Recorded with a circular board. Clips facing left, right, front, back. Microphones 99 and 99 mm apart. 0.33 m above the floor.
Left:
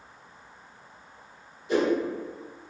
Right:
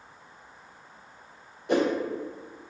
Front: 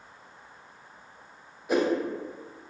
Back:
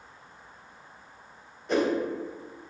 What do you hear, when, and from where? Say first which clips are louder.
1.7 s a whoosh: even, even; 80° right, 0.6 m